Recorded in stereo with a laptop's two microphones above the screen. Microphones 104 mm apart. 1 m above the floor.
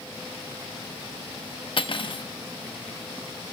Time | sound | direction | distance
1.8 | cutlery clinking | 55° left (ahead or behind) | 0.9 m